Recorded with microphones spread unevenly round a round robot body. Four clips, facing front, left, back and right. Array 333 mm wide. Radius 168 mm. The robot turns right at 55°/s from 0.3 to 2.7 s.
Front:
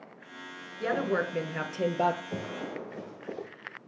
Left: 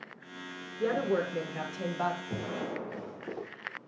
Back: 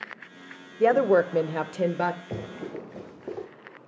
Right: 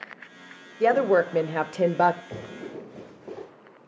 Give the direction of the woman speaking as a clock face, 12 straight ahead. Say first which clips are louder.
Right 9 dB, back 9 dB; 5 o'clock.